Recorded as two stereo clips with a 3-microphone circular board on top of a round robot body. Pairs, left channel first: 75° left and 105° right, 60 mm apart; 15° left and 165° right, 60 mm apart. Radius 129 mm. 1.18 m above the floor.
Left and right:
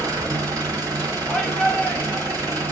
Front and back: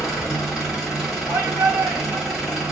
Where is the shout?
145° left, 1.7 m.